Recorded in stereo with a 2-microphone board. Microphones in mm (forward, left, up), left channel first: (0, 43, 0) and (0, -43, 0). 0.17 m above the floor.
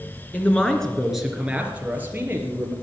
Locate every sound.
0.3 s a man speaking: 20° left (ahead or behind), 2 m; by 2.7 s 25° right (ahead or behind), 4 m